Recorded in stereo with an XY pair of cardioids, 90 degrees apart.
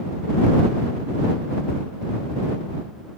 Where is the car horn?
No car horn in this recording.